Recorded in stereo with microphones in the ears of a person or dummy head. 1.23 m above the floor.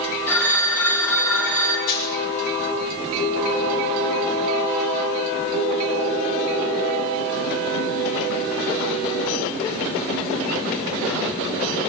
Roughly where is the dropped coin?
Left.